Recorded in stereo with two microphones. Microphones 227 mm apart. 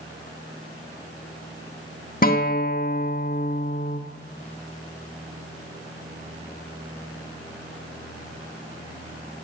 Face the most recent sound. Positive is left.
turn(degrees=40)  # may be behind; listen again after turning